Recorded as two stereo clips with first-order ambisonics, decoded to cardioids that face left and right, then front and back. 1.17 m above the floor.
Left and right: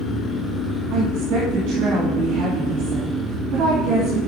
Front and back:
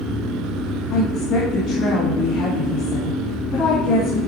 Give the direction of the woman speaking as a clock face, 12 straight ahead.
2 o'clock.